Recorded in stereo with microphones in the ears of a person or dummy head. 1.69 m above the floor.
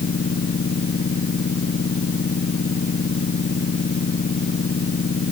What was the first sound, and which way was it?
A machine running, 40° left (ahead or behind).